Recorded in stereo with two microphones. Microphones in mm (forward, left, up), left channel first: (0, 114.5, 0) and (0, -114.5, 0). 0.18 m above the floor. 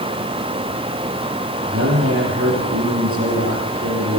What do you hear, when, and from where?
1.7 s a man speaking: 75° right (ahead or behind), 7.5 m